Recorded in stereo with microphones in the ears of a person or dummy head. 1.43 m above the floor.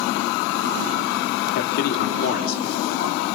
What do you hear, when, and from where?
1.6 s a man speaking: 60° left (ahead or behind), 3 m